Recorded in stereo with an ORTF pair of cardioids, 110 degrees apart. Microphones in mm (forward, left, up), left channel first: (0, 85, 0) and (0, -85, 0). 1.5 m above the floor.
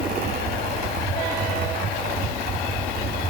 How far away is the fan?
About 9 m.